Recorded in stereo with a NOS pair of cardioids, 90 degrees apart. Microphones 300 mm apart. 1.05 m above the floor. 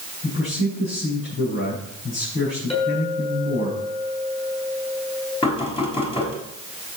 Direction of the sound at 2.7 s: 20° left.